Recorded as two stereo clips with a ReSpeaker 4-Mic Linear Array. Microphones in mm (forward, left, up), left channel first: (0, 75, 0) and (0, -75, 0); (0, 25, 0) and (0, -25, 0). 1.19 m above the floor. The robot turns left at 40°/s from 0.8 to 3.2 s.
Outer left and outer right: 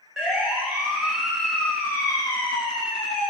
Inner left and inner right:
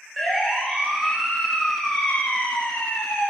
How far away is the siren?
About 4.5 m.